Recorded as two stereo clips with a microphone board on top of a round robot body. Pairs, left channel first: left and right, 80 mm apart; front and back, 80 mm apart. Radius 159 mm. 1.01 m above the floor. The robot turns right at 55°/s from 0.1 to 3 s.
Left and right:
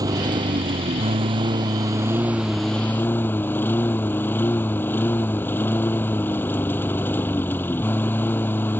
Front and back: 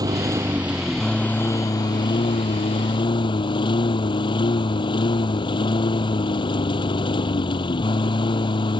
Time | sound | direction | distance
0.0 | a lawn mower | 135° right | ?